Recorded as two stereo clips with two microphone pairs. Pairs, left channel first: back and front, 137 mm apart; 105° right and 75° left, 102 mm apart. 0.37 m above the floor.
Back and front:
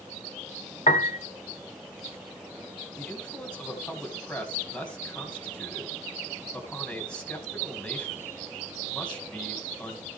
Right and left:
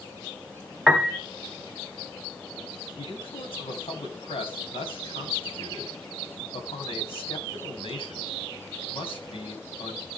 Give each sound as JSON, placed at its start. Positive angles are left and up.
{"t": 0.9, "sound": "a piano", "azimuth_deg": 155, "distance_m": 0.9}
{"t": 3.0, "sound": "a man speaking", "azimuth_deg": -100, "distance_m": 3.0}